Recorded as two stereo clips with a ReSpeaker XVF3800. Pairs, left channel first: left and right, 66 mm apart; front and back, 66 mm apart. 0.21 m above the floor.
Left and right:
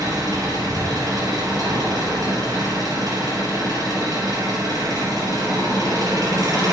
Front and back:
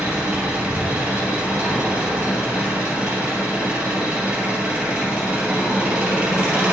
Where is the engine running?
110° right, 4 m.